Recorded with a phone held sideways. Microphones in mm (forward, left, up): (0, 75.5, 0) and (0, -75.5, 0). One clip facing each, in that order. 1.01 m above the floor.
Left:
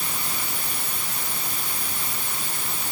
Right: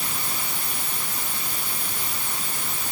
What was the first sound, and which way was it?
Only background noise.